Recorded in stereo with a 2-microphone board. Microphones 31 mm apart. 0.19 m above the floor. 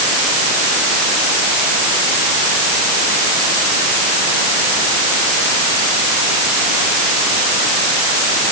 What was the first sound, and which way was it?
Only background noise.